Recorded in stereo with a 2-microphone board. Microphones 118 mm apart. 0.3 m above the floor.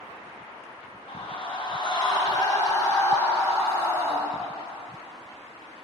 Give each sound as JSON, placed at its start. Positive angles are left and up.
{"t": 1.1, "sound": "a scream", "side_deg": 50, "distance_m": 3.0}